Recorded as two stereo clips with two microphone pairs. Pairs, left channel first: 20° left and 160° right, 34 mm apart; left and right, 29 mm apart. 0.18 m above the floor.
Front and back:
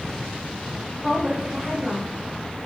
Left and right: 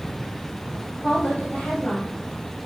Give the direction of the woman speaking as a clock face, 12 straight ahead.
8 o'clock.